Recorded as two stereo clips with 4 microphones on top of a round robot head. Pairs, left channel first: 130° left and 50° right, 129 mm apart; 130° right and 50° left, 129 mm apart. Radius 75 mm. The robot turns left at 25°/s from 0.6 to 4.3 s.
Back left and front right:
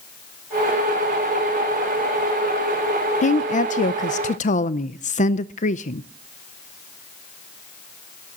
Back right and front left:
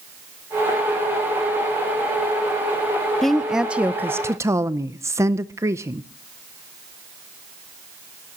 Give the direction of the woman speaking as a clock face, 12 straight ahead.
7 o'clock.